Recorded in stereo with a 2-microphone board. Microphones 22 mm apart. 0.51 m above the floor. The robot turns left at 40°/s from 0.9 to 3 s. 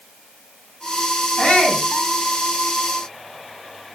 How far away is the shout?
About 5.5 m.